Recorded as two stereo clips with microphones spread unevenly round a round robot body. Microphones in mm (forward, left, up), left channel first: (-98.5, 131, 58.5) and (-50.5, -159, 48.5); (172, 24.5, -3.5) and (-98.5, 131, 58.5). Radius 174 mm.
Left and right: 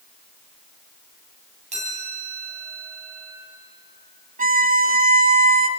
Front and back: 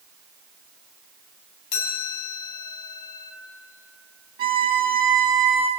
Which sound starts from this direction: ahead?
A chime, at 1.7 s.